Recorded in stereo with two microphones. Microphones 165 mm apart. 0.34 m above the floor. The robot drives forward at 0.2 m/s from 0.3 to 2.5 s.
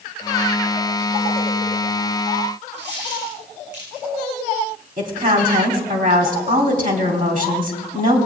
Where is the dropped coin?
85° right, 6.5 m.